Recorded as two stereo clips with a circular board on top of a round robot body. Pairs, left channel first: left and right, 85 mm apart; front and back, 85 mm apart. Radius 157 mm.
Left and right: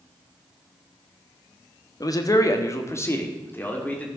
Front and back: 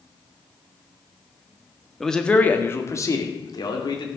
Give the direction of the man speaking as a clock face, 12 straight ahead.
9 o'clock.